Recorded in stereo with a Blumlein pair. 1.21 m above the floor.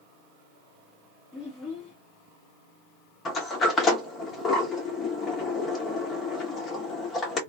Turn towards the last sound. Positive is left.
turn(degrees=20)